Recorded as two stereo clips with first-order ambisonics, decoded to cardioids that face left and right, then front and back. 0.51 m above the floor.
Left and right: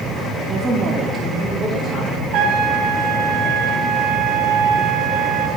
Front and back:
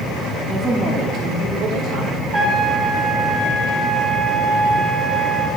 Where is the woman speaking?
80° right, 1.2 m; by 2.2 s 170° left, 2.0 m.